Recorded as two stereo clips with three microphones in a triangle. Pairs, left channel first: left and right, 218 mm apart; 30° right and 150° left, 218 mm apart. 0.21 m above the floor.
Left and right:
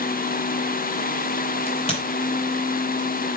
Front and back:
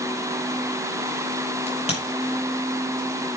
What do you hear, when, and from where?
1.7 s a crack: 30° left, 5 m